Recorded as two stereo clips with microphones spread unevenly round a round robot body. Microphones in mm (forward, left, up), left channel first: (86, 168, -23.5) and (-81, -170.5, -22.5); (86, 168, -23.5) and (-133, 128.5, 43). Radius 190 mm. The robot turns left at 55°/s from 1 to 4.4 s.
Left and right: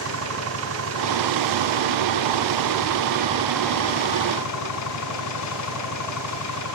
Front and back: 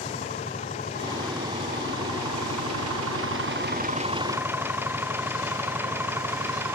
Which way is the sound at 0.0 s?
65° right.